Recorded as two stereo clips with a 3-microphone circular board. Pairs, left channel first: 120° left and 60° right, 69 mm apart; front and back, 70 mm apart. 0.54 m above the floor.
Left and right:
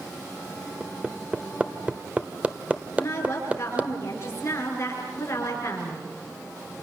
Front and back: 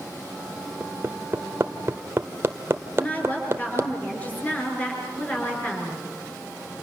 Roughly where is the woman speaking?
Ahead left.